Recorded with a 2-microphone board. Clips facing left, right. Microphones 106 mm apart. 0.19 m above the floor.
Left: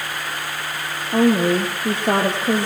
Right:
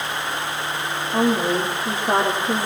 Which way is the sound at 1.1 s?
75° left (ahead or behind).